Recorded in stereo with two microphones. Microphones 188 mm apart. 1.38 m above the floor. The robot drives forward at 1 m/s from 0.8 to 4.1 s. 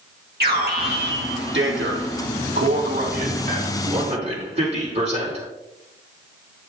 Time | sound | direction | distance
0.4 | an alarm | 55° right (ahead or behind) | 2.0 m